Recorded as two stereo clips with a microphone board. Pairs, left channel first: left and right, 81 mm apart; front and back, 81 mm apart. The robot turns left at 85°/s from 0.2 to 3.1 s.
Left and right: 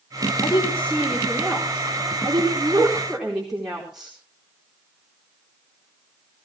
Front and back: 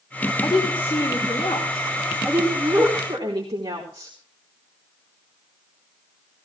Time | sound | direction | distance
0.4 | a woman speaking | 55° left | 4.5 m